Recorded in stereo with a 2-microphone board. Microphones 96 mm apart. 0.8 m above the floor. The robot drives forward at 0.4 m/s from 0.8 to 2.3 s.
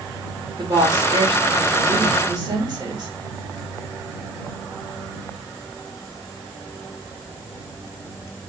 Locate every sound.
0.6 s a woman speaking: 60° right (ahead or behind), 2 m; by 3.1 s 50° right (ahead or behind), 2.5 m